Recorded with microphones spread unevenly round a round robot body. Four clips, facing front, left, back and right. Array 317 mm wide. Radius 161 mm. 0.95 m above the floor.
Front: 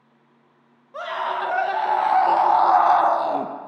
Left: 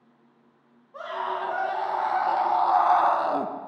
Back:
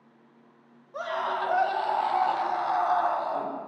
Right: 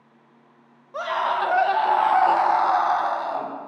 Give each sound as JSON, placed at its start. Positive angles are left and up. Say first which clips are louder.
{"t": 0.9, "sound": "a scream", "louder": "right 6 dB, front 3 dB", "azimuth_deg": -70, "distance_m": 1.5}